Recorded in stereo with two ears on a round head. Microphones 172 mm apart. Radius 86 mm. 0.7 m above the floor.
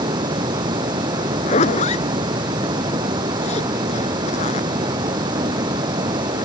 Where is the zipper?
35° left (ahead or behind).